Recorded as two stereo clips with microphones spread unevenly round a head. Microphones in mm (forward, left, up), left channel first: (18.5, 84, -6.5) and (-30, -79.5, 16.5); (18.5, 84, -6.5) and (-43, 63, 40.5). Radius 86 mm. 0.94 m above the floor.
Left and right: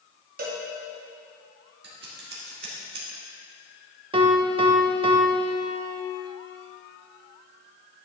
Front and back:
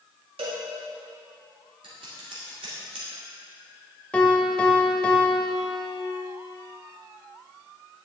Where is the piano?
115° right, 0.7 m.